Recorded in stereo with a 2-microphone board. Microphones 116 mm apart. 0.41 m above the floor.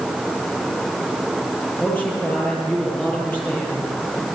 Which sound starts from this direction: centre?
A man speaking, at 1.8 s.